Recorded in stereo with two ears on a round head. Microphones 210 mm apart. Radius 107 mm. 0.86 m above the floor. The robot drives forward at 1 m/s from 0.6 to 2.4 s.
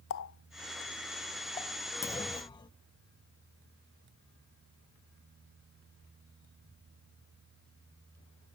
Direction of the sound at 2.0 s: 15° left (ahead or behind).